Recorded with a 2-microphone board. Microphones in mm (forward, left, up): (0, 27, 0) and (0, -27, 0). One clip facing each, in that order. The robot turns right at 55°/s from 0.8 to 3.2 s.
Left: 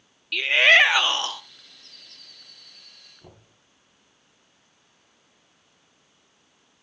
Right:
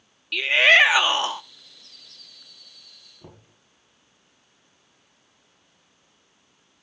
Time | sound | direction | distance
0.3 | a shout | straight behind | 0.9 m
3.2 | knocking | 25° right (ahead or behind) | 5 m